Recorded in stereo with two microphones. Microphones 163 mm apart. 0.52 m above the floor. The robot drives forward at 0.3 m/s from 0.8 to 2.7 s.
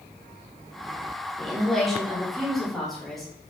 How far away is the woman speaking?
About 0.7 m.